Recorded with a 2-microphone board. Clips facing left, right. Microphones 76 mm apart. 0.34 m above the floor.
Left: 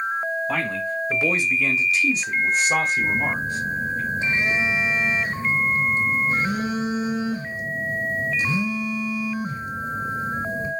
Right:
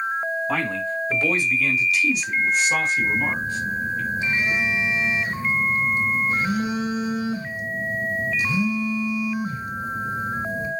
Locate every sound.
0.5 s a man speaking: 5° left (ahead or behind), 1.4 m; by 4.0 s 50° left (ahead or behind), 1.8 m
3.0 s a phone buzzing: 30° left (ahead or behind), 0.9 m